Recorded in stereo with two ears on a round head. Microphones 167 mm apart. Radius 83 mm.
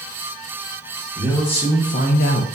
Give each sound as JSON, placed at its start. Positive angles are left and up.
{"t": 1.1, "sound": "a man speaking", "side_deg": 25, "distance_m": 1.2}